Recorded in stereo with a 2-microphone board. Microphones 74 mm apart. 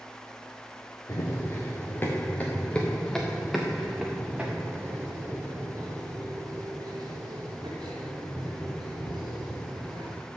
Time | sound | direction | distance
1.1 | running footsteps | 40° left (ahead or behind) | 2 m